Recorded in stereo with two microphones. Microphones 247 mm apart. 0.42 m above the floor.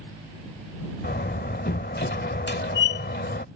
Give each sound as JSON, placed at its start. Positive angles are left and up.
{"t": 1.0, "sound": "a door slam", "side_deg": 40}